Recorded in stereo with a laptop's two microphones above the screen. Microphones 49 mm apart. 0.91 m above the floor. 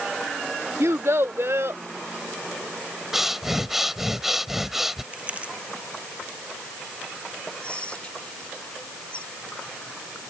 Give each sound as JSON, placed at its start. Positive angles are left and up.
{"t": 0.8, "sound": "a child speaking", "side_deg": -70}
{"t": 3.1, "sound": "breathing", "side_deg": -5}
{"t": 5.1, "sound": "crumpling", "side_deg": -30}
{"t": 7.6, "sound": "whispering", "side_deg": 25}